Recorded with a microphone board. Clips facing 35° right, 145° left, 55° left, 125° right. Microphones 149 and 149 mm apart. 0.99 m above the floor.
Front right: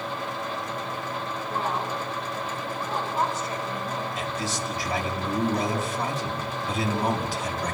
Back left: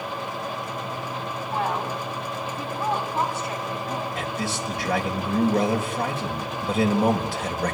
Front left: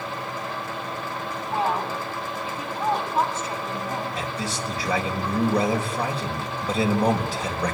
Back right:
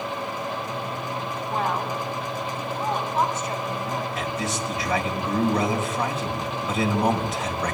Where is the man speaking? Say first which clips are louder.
Back left 2 dB, back right 2 dB; 115° left, 4 m.